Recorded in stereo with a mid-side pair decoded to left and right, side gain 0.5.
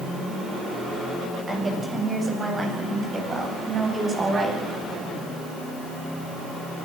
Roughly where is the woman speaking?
Ahead right.